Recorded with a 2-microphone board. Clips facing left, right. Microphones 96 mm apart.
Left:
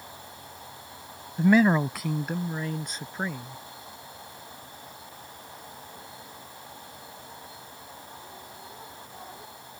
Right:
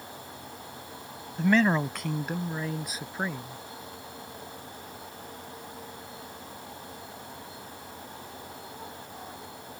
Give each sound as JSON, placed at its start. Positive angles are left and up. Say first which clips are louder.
{"t": 1.4, "sound": "a man speaking", "louder": "left 3 dB", "side_deg": 10}